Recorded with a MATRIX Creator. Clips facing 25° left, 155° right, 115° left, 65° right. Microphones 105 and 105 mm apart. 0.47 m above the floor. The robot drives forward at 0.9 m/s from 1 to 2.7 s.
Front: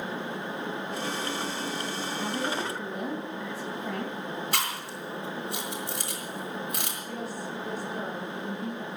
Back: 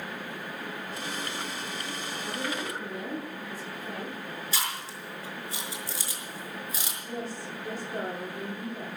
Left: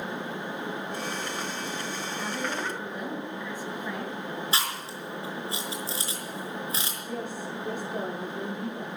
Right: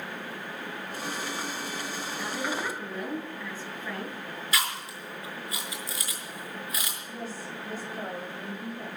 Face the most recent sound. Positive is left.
turn(degrees=135)